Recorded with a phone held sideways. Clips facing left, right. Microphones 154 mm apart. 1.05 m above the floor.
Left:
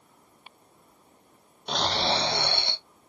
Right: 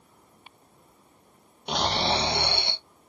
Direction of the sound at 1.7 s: 15° right (ahead or behind).